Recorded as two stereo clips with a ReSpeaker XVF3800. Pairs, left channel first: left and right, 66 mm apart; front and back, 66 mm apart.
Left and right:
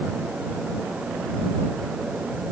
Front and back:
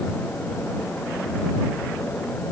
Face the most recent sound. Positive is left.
No sound to turn to.